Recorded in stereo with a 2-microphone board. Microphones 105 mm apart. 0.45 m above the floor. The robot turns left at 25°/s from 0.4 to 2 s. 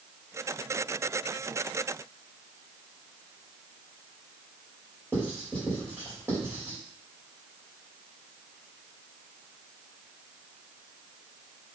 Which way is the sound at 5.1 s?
20° right (ahead or behind).